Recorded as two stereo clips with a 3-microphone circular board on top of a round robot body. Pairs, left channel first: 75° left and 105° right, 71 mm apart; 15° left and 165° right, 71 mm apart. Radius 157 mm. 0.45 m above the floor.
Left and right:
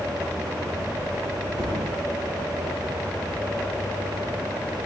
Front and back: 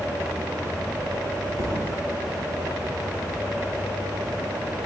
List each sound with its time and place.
1.6 s a thud: 130° right, 7 m